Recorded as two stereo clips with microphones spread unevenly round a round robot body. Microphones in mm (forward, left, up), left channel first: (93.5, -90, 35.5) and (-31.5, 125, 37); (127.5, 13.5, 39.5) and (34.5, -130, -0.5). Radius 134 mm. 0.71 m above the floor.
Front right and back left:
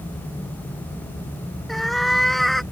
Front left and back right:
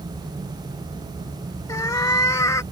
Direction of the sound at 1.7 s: 30° left.